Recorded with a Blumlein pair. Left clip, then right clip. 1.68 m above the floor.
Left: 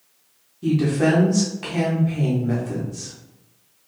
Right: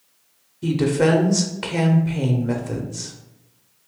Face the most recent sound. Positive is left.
turn(degrees=-70)